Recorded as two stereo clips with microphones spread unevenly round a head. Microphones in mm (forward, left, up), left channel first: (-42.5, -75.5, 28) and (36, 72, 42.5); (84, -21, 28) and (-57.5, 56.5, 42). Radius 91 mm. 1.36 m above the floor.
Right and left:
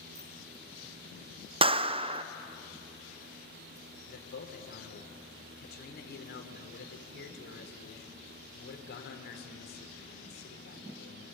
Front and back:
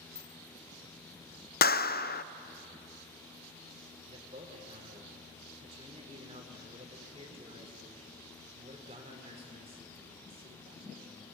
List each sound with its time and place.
0.1 s a bicycle bell: 55° left, 7 m
1.6 s a clap: straight ahead, 0.5 m
4.1 s a man speaking: 150° right, 4 m